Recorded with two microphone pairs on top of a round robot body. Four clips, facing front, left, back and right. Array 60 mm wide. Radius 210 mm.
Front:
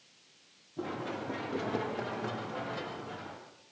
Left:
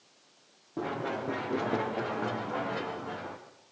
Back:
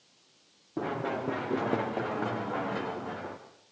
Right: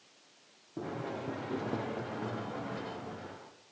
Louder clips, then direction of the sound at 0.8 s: Left 5 dB, back 5 dB; 155° left.